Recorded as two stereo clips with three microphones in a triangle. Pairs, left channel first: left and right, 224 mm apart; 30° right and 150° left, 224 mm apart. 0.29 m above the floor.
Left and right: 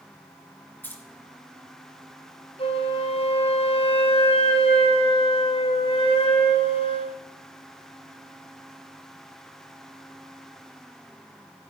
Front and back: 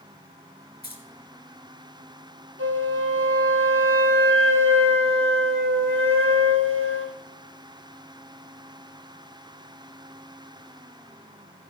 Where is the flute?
150° left, 2 m.